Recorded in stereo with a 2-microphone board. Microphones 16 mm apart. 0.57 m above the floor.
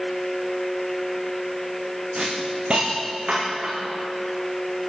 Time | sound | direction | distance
2.1 | a hiss | 80° right | 7.5 m